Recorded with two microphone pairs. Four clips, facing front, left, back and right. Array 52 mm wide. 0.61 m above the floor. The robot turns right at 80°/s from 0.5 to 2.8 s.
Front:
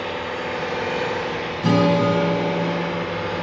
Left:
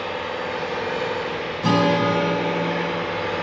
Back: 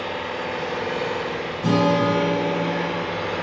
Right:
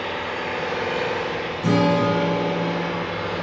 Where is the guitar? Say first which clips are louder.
Even, front 1 dB; 65° left, 4 m; by 3.1 s 160° left, 4 m.